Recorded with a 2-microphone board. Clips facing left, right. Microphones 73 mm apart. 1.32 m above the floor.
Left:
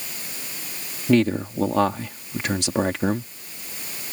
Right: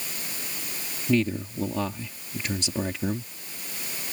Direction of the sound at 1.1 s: 70° left (ahead or behind).